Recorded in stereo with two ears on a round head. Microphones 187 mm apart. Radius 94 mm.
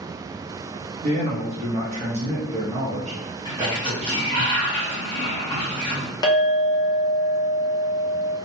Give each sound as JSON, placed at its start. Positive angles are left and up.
{"t": 1.0, "sound": "a man speaking", "side_deg": -30, "distance_m": 0.7}
{"t": 3.5, "sound": "a sliding door", "side_deg": 25, "distance_m": 1.1}
{"t": 6.2, "sound": "a clink", "side_deg": 20, "distance_m": 0.6}